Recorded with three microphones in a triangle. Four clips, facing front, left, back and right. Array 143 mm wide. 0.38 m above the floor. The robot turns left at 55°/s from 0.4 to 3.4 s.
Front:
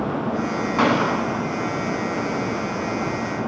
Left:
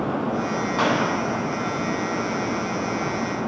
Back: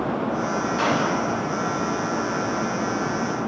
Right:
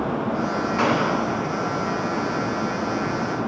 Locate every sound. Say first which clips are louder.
0.8 s a gunshot: right 1 dB, front 5 dB; 15° left, 3 m; by 1.4 s 20° right, 3 m